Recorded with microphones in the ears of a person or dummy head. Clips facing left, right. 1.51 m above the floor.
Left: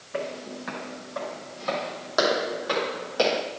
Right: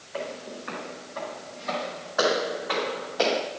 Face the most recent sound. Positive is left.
turn(degrees=35)  # may be behind; listen again after turning